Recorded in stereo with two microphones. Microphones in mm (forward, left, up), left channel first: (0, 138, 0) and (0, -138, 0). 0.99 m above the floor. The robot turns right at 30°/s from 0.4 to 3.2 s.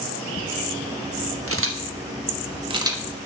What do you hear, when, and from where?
1.5 s a camera shutter: 55° right (ahead or behind), 1.3 m; by 3.0 s 10° right (ahead or behind), 1.3 m